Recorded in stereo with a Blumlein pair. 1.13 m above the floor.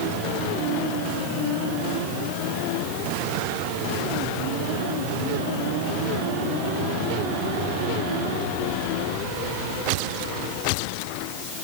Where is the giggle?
I don't hear a giggle.